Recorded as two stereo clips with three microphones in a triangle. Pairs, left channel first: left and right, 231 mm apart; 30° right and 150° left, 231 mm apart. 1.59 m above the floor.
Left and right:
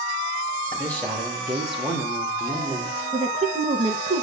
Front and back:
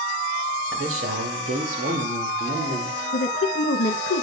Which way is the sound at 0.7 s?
170° left.